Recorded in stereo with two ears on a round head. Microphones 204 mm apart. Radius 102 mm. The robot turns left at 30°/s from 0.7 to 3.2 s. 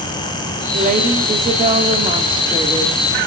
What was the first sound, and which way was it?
A woman speaking, 90° right.